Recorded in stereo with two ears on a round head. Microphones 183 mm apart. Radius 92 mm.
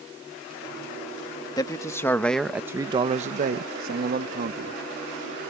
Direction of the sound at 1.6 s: 20° left (ahead or behind).